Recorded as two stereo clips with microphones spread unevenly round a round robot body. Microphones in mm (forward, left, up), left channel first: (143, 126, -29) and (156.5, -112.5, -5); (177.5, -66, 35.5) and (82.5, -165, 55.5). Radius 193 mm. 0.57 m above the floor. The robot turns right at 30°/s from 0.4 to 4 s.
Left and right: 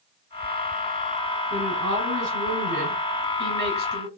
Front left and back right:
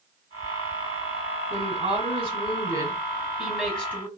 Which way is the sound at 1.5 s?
105° right.